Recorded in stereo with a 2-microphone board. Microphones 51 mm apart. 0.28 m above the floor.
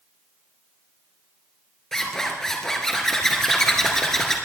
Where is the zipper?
10° left (ahead or behind), 3 m.